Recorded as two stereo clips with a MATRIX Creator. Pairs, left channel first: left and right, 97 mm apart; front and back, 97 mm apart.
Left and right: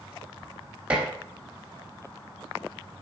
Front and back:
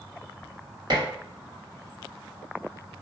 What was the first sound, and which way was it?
Dishes clattering, 160° right.